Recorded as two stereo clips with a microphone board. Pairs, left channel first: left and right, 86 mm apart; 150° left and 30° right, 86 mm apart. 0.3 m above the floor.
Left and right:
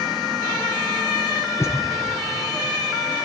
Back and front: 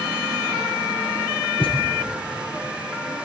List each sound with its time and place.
1.6 s a thud: 150° left, 2.5 m